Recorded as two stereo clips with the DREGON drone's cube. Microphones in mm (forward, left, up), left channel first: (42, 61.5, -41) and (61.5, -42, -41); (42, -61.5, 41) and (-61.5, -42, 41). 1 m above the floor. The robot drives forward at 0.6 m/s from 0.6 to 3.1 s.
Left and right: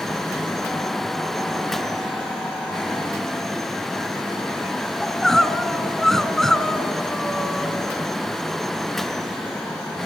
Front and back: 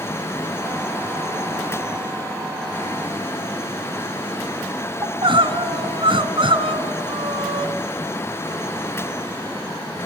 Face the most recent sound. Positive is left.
turn(degrees=-175)